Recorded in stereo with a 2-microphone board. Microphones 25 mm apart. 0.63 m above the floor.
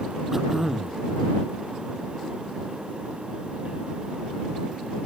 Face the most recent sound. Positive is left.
turn(degrees=-10)  # may be behind; listen again after turning